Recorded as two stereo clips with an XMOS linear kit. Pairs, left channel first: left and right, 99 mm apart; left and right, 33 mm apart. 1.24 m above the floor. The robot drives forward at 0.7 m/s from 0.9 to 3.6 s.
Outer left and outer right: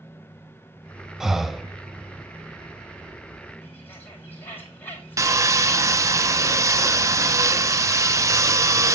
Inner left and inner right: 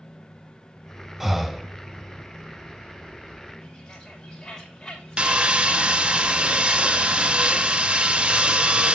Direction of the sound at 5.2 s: 30° right (ahead or behind).